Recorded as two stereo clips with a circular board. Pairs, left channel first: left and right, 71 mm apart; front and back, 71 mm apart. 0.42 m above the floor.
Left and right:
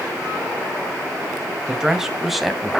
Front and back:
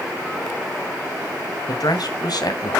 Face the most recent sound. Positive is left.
turn(degrees=5)